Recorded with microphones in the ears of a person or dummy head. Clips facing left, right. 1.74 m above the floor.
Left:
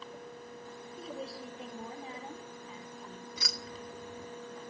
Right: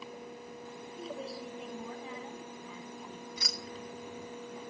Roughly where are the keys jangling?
Left.